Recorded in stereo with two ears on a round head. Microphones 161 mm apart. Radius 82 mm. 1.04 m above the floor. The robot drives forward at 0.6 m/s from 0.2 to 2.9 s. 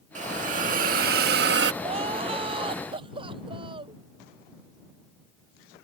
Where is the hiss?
40° right (ahead or behind); by 1.7 s 65° right (ahead or behind).